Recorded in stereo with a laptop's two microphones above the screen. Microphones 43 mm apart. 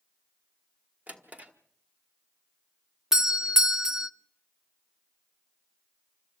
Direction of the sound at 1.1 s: 35° right (ahead or behind).